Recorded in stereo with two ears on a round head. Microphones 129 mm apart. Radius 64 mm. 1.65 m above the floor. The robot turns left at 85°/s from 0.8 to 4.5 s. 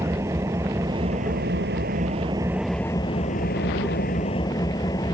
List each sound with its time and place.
0.0 s an engine running: 20° right; by 5.2 s 25° left